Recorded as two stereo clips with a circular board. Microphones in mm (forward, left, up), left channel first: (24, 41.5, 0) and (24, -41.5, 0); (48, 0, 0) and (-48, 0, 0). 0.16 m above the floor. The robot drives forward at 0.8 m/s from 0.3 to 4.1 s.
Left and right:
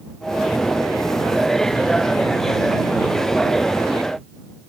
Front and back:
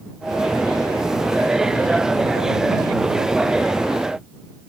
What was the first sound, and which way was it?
Only background noise.